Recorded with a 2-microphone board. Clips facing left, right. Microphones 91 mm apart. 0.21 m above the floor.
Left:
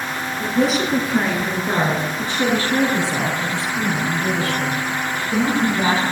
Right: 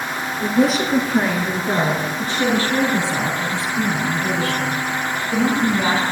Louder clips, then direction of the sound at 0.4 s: Right 2 dB; 5° right (ahead or behind).